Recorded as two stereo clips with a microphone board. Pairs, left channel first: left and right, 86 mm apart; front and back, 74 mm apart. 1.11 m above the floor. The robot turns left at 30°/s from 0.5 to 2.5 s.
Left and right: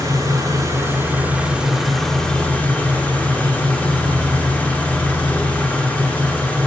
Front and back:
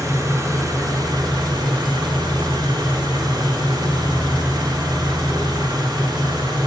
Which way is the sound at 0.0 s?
135° right.